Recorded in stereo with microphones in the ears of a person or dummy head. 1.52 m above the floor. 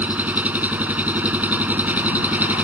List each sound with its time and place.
0.0 s an engine running: 10° right (ahead or behind)